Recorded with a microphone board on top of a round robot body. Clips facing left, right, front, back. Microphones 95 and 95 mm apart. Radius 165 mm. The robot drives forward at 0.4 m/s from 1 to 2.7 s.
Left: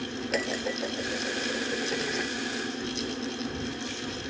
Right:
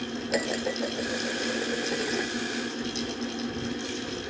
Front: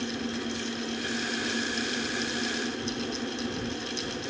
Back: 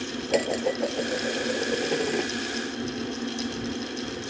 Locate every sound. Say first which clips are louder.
0.3 s dishes clattering: right 2 dB, back 9 dB; 175° right